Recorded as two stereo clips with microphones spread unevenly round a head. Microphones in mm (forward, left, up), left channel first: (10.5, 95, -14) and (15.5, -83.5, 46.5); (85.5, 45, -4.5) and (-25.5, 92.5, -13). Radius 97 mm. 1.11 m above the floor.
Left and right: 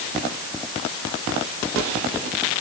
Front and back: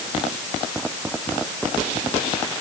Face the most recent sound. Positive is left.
No sound to turn to.